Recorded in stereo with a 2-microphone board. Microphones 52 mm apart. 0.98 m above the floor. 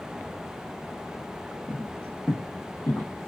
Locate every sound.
1.7 s footsteps: 15° left (ahead or behind), 1.2 m; by 3.3 s 45° left (ahead or behind), 1.3 m